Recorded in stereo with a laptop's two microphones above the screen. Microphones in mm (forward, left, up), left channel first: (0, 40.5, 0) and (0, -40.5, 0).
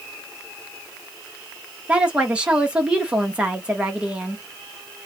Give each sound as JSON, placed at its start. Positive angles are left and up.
{"t": 1.9, "sound": "a woman speaking", "side_deg": -15, "distance_m": 0.9}